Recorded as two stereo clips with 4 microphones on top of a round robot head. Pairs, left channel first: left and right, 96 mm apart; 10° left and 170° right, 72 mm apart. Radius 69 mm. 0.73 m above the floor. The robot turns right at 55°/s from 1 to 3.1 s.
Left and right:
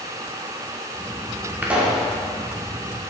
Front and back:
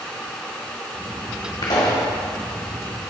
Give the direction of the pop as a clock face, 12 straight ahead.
1 o'clock.